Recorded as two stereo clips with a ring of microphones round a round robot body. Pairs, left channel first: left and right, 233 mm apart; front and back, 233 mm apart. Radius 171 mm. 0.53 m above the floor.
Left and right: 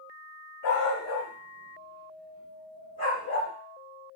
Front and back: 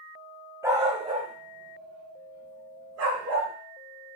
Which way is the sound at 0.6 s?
100° left.